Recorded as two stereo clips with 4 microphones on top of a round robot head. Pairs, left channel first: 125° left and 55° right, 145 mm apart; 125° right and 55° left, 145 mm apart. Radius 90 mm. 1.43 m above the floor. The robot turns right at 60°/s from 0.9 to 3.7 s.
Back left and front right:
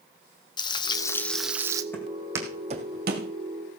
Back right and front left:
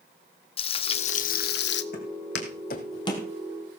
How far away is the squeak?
No squeak in this recording.